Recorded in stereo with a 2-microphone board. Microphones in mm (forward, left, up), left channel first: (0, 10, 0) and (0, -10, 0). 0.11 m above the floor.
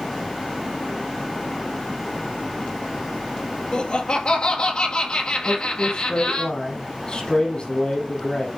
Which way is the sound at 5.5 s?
50° left (ahead or behind).